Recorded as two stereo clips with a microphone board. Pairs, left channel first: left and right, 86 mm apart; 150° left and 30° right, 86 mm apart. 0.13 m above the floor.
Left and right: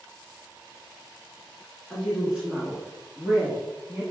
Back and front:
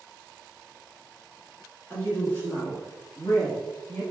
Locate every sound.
1.9 s a woman speaking: 170° left, 1.4 m; by 4.0 s 155° right, 2.5 m